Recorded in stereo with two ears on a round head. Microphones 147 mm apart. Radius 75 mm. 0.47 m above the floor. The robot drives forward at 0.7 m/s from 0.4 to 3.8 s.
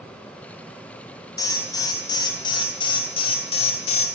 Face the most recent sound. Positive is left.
turn(degrees=40)  # may be behind; listen again after turning